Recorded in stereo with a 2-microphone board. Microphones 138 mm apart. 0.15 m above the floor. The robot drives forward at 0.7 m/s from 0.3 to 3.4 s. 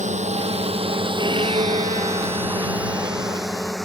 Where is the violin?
35° right (ahead or behind); by 3.7 s 25° right (ahead or behind).